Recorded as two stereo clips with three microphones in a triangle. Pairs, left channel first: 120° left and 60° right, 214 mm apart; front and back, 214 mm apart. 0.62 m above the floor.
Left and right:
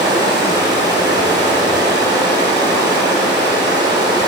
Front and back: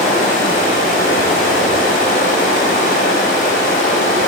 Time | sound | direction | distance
0.0 | running water | 10° left | 1.2 m